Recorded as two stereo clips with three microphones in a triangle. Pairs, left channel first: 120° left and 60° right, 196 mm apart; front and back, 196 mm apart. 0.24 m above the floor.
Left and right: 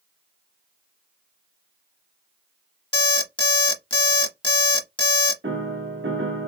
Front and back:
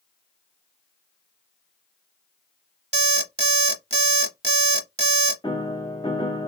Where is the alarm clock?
160° left, 0.8 m.